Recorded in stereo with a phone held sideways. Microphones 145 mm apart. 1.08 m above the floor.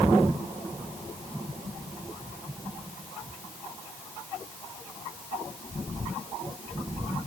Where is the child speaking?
No child speaking in this recording.